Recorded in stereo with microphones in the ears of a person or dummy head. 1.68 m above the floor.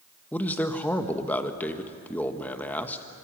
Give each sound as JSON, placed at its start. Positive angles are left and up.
{"t": 0.3, "sound": "a man speaking", "side_deg": 15, "distance_m": 1.5}